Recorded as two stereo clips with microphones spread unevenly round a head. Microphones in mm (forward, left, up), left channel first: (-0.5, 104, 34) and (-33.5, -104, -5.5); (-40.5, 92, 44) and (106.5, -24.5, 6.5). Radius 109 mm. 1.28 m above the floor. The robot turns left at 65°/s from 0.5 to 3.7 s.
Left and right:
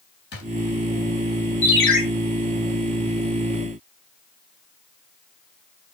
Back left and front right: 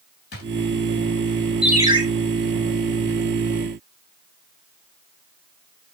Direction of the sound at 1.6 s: 50° left.